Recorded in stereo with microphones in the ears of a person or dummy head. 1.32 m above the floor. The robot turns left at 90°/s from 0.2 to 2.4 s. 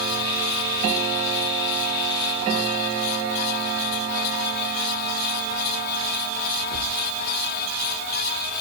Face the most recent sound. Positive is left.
No sound to turn to.